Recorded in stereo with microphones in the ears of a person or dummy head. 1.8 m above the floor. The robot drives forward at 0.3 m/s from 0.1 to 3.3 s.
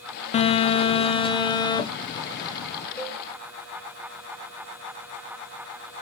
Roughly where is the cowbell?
Left.